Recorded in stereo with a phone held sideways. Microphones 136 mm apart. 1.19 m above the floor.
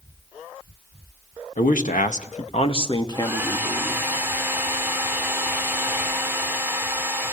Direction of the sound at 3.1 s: 15° right (ahead or behind).